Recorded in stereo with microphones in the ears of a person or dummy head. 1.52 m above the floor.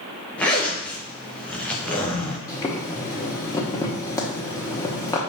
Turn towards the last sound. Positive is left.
turn(degrees=15)  # may be behind; listen again after turning